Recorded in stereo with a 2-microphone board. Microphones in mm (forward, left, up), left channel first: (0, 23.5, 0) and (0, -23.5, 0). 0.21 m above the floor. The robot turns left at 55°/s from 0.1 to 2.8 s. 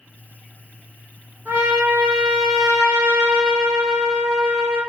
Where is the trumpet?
120° right, 2 m; by 4.8 s 165° left, 2 m.